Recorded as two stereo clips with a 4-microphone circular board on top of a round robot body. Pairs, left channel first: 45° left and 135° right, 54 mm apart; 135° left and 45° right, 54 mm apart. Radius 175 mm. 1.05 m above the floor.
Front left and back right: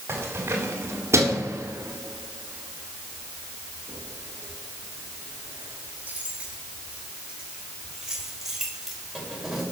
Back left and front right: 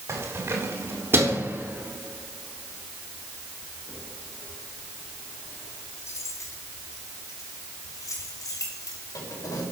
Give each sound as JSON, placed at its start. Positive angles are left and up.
{"t": 0.1, "sound": "keys jangling", "azimuth_deg": -85, "distance_m": 2.5}